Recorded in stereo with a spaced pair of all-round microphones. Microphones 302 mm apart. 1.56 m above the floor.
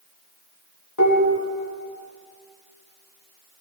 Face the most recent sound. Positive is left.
turn(degrees=70)  # may be behind; listen again after turning